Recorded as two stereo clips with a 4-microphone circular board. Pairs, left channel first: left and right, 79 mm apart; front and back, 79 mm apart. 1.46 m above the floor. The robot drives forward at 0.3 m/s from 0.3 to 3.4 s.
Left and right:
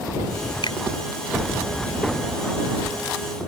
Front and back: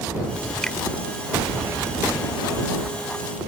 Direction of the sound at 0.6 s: 80° left.